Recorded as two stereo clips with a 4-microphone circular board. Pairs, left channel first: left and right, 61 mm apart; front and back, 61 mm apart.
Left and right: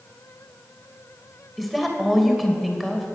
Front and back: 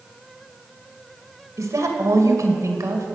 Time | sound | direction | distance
1.6 | a woman speaking | straight behind | 1.9 m